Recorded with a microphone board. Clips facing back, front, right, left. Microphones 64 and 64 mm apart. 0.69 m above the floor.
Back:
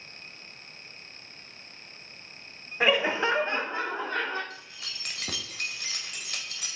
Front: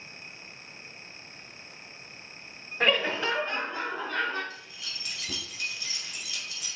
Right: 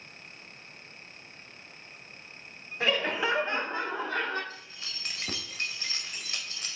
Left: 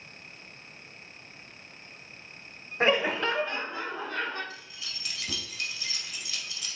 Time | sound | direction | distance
2.8 | laughter | 105° left | 0.7 m
4.5 | keys jangling | 140° right | 1.8 m